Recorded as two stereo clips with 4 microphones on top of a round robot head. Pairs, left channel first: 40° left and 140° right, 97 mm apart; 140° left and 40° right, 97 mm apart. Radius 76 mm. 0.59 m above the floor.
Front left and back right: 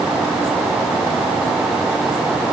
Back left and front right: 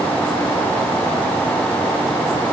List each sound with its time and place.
Only background noise.